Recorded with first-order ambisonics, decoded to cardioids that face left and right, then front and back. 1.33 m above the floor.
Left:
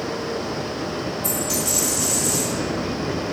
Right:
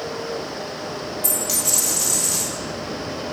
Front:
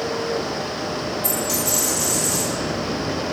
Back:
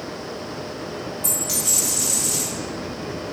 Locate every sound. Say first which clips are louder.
1.2 s a dropped coin: right 2 dB, back 2 dB; 115° right, 1.2 m